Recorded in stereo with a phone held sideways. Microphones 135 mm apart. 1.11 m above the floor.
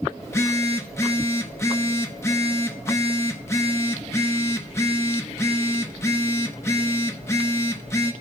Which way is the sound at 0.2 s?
20° left (ahead or behind).